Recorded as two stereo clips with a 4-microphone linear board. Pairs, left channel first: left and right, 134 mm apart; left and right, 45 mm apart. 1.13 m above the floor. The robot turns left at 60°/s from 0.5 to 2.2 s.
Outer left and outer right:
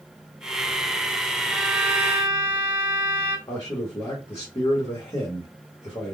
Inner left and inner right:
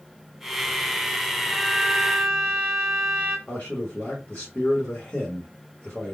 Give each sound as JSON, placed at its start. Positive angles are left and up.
{"t": 1.5, "sound": "a violin", "azimuth_deg": 0, "distance_m": 1.0}
{"t": 3.5, "sound": "a man speaking", "side_deg": 35, "distance_m": 1.2}